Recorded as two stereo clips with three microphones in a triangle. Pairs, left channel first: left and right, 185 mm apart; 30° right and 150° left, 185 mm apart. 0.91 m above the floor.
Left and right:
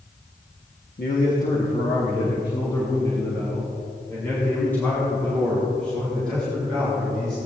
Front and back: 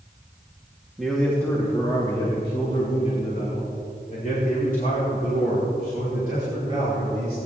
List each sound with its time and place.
1.0 s a man speaking: 60° left, 1.5 m; by 7.4 s 5° left, 7 m